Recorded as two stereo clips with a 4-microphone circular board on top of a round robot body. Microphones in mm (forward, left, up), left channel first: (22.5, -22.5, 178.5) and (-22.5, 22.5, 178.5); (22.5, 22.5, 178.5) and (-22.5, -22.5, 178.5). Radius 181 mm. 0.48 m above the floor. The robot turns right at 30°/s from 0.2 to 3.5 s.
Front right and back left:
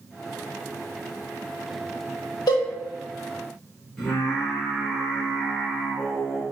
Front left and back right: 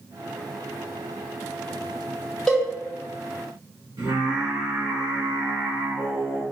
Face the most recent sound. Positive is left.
turn(degrees=-130)